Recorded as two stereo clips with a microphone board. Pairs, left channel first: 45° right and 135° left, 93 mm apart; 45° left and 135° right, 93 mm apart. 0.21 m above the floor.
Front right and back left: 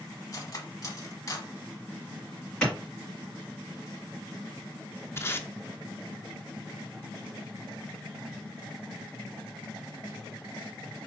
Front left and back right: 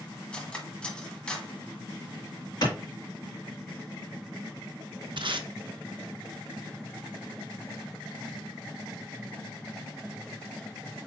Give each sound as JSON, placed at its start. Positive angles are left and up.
{"t": 0.3, "sound": "cutlery clinking", "azimuth_deg": -25, "distance_m": 0.9}
{"t": 2.6, "sound": "a clap", "azimuth_deg": 30, "distance_m": 2.0}
{"t": 5.2, "sound": "tape being pulled", "azimuth_deg": -110, "distance_m": 0.5}